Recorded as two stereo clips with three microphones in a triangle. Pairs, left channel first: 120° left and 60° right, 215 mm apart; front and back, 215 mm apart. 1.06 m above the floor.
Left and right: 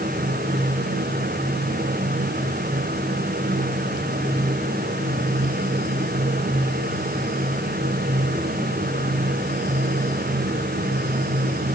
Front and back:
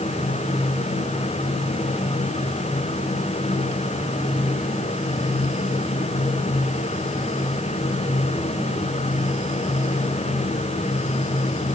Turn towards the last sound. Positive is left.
No sound to turn to.